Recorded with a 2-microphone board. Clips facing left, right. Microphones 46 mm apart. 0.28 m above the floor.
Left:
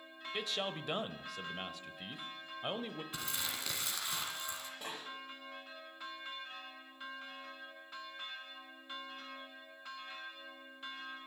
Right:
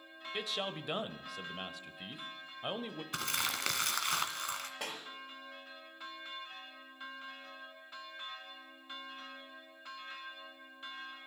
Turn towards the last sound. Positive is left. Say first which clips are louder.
# right 2 dB
turn(degrees=-75)  # may be behind; listen again after turning